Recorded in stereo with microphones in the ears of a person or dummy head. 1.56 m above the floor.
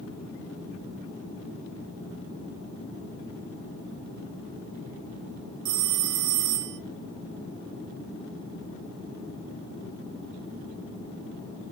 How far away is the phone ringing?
About 1.3 m.